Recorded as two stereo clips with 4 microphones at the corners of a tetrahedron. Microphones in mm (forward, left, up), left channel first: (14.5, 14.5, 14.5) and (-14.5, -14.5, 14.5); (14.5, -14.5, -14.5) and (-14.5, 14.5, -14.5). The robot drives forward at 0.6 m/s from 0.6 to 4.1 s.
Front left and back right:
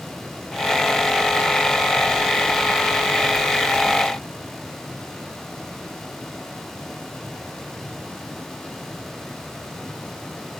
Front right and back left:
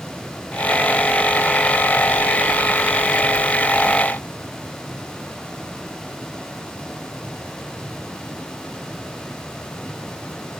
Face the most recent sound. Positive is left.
No sound to turn to.